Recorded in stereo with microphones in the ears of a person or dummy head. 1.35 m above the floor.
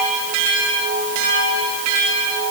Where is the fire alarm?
No fire alarm in this recording.